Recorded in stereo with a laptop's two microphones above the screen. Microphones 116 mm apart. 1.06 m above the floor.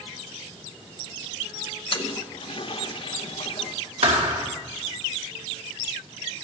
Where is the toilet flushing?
50° left (ahead or behind), 0.7 m.